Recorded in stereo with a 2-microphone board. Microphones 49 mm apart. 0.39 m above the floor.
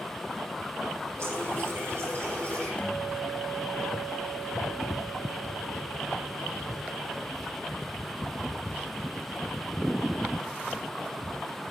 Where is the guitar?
30° left (ahead or behind), 2.0 m.